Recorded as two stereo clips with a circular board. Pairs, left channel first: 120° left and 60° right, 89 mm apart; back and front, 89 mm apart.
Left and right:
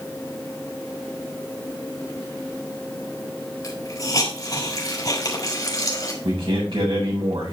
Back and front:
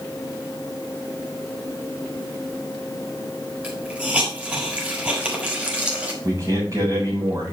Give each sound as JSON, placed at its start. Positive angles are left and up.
{"t": 3.6, "sound": "a hiss", "azimuth_deg": 80, "distance_m": 3.5}
{"t": 6.2, "sound": "a man speaking", "azimuth_deg": -50, "distance_m": 5.0}